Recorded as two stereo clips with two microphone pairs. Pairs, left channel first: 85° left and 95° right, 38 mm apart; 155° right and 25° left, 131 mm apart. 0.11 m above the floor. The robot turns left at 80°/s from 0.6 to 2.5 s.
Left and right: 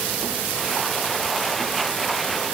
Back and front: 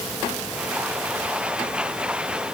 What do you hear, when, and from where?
Only background noise.